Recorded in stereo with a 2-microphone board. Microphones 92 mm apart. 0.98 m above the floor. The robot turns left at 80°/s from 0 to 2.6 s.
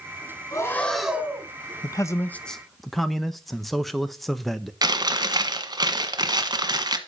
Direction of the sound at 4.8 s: 45° right (ahead or behind).